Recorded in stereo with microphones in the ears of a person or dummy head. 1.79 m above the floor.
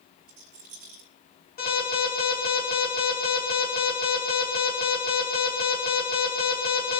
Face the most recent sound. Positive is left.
turn(degrees=45)  # may be behind; listen again after turning